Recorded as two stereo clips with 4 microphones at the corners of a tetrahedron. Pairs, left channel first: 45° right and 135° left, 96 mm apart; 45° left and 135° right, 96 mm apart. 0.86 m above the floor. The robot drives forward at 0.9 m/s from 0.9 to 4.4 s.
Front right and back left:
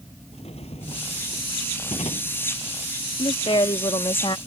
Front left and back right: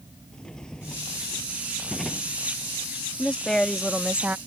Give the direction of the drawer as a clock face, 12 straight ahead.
1 o'clock.